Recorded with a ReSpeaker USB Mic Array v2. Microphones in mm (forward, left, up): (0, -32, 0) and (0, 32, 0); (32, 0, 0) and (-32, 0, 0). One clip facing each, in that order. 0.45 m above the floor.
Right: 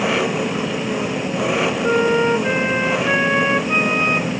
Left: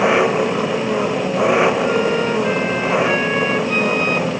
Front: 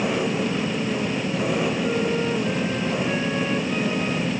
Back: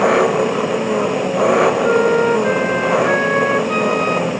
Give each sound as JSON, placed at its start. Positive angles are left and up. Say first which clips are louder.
{"t": 0.0, "sound": "an engine running", "louder": "left 5 dB, back 10 dB", "azimuth_deg": 155}
{"t": 1.8, "sound": "a flute", "louder": "right 1 dB, back 10 dB", "azimuth_deg": -155}